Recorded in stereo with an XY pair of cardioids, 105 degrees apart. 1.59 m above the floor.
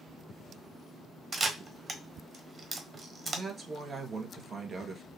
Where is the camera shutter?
40° right, 1.1 m.